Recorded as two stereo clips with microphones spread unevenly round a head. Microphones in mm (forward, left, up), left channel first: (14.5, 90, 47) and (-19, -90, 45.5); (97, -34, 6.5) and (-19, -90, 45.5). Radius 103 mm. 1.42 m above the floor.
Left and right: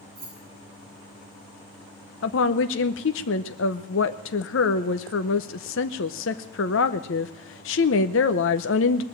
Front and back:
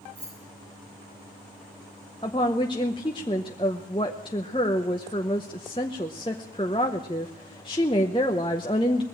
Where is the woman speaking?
100° left, 0.7 m.